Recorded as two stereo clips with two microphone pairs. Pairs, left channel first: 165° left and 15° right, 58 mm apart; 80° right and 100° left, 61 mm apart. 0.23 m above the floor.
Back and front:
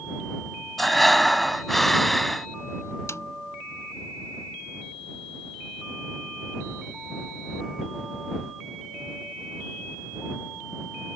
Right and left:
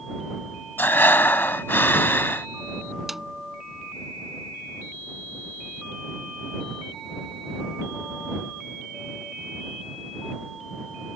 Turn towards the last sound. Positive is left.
turn(degrees=-175)